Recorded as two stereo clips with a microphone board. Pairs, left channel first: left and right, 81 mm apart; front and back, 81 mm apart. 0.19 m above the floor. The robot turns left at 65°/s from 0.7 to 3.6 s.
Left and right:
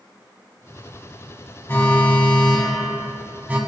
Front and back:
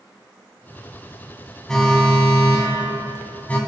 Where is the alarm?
75° left, 0.8 m; by 3.6 s 50° right, 0.8 m.